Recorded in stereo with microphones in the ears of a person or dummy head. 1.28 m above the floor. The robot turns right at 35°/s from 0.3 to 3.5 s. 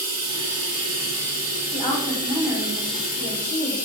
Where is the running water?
95° right, 1.2 m; by 3.9 s 15° left, 1.2 m.